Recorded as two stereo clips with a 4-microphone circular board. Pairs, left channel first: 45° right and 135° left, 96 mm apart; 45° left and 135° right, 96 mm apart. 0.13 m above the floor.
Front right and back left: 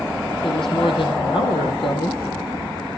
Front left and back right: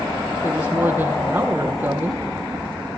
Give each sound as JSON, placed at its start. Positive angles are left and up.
{"t": 0.4, "sound": "a woman speaking", "azimuth_deg": -65, "distance_m": 3.5}